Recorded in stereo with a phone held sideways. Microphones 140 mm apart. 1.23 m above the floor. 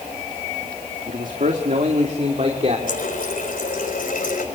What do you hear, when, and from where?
1.1 s a man speaking: 70° right (ahead or behind), 1.9 m; by 2.8 s 45° right (ahead or behind), 3 m
2.9 s a running tap: 85° left, 3.5 m